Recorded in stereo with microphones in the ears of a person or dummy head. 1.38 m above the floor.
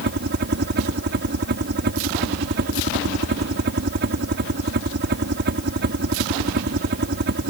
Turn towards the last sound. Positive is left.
turn(degrees=-55)  # may be behind; listen again after turning